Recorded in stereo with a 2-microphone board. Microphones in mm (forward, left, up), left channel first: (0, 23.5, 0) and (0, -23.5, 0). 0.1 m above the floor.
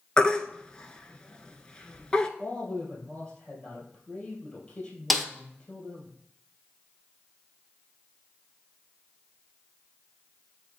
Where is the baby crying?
20° left (ahead or behind), 0.5 m.